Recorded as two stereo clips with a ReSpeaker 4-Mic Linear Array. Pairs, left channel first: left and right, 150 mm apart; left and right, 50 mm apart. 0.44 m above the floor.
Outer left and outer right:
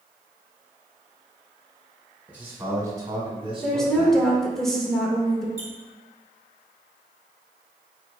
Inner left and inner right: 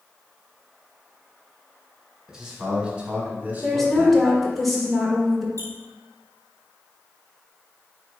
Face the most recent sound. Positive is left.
turn(degrees=-45)  # may be behind; listen again after turning